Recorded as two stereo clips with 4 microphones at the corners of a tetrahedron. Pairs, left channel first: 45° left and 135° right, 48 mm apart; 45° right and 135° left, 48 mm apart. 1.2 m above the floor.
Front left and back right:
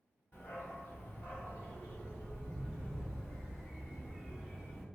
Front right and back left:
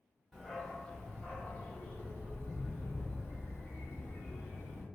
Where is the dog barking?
40° left, 1.3 m; by 4.8 s 55° right, 2 m.